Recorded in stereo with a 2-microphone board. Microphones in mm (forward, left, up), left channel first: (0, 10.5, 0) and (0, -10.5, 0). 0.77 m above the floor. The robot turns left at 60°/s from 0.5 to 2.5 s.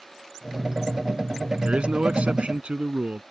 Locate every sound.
1.6 s a man speaking: 65° right; by 3.2 s 115° right